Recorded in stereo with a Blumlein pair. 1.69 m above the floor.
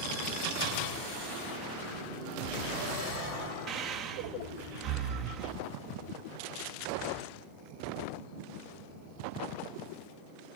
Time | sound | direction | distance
3.7 | breathing | 30° right | 0.6 m